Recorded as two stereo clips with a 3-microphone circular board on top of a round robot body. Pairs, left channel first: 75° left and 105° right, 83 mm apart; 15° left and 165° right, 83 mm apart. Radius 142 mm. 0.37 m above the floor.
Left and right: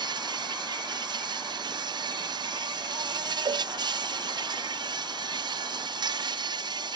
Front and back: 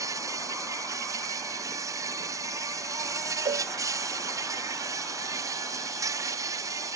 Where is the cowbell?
145° right.